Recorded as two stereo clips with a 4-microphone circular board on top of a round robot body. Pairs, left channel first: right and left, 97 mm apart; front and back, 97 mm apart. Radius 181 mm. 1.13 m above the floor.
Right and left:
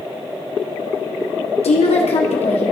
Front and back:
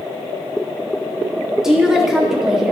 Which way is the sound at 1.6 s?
95° right.